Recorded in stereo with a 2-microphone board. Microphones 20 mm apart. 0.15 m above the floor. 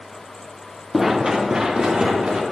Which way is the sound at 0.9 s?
5° right (ahead or behind).